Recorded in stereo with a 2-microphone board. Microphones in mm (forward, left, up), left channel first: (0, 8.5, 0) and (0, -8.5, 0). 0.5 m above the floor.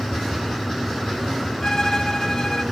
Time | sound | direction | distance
1.6 | a violin | 35° left (ahead or behind) | 1.5 m